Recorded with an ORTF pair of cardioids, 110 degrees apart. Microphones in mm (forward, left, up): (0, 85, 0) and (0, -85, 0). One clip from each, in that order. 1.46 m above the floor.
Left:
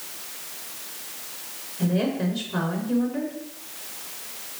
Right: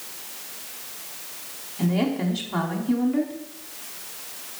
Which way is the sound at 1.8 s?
70° right.